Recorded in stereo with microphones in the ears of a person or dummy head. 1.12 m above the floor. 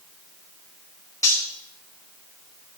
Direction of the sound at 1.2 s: 20° left (ahead or behind).